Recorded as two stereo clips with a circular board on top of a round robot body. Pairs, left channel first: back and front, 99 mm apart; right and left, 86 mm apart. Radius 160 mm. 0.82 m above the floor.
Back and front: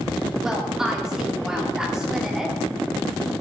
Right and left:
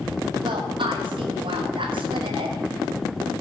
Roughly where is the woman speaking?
Left.